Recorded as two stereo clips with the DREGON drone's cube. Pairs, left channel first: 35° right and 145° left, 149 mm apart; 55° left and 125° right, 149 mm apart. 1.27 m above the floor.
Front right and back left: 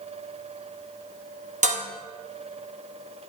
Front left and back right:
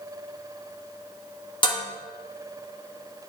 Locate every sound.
1.6 s dishes clattering: 110° left, 1.9 m